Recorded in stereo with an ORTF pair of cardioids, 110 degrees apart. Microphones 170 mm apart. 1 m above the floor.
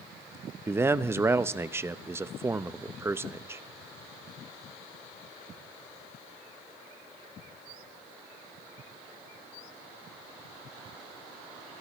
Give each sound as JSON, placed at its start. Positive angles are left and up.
{"t": 0.7, "sound": "a man speaking", "azimuth_deg": -15, "distance_m": 0.7}